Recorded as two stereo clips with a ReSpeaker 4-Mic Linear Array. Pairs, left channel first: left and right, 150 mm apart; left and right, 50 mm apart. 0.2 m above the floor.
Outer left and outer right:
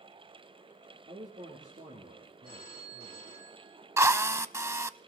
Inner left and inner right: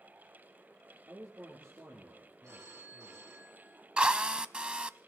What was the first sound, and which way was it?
A man speaking, 60° right (ahead or behind).